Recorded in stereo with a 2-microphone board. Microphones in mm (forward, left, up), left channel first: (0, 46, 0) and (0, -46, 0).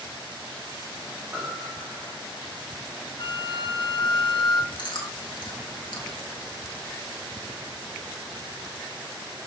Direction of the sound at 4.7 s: 60° left (ahead or behind).